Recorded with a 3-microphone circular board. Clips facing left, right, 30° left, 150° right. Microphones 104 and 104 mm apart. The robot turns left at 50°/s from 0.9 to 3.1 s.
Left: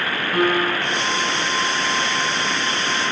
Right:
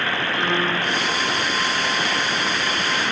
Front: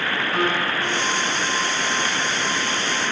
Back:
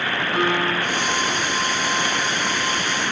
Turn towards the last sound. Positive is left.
turn(degrees=10)